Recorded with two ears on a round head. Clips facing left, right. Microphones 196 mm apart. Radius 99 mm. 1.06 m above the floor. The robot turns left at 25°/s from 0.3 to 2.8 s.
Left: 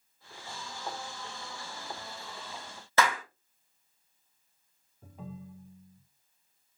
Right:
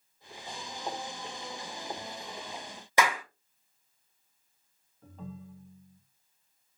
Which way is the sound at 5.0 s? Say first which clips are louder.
Even; 10° left (ahead or behind).